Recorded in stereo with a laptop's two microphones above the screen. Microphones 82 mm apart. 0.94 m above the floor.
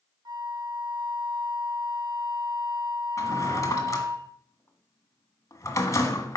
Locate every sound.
0.2 s a flute: 55° right (ahead or behind), 0.9 m
3.2 s a drawer: 35° left (ahead or behind), 1.6 m